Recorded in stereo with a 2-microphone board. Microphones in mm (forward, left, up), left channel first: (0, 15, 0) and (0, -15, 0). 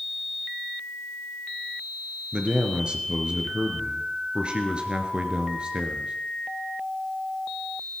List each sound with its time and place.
2.3 s a man speaking: 30° right (ahead or behind), 2.0 m